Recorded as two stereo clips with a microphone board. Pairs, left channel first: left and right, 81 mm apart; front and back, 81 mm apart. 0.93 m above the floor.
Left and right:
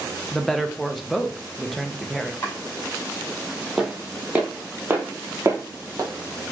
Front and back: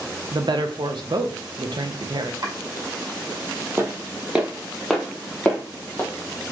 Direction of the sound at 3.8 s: 170° right.